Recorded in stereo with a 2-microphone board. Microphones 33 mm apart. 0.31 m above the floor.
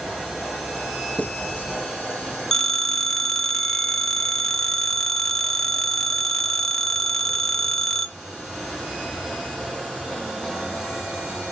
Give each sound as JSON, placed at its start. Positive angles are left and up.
{"t": 1.2, "sound": "writing", "side_deg": 55, "distance_m": 3.0}
{"t": 2.5, "sound": "a phone ringing", "side_deg": 15, "distance_m": 0.6}